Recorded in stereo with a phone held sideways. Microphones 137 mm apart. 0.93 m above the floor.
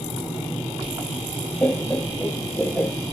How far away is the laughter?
About 1.2 m.